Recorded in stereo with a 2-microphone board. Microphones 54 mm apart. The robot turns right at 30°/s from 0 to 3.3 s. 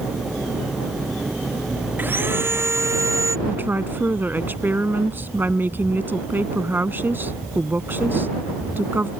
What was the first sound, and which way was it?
Sawing, 145° right.